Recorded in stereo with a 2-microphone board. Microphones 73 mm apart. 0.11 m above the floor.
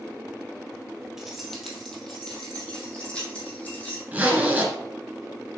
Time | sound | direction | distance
1.2 | keys jangling | 5° right (ahead or behind) | 1.9 m
4.1 | a zipper | 15° right (ahead or behind) | 2.0 m